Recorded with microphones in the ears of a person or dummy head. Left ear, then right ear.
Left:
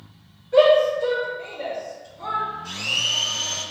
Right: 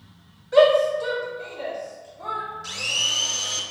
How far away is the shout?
About 0.9 m.